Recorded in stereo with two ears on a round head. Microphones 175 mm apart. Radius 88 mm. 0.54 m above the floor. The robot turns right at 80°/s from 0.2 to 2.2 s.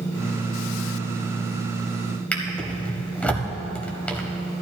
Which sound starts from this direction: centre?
A drawer, at 2.3 s.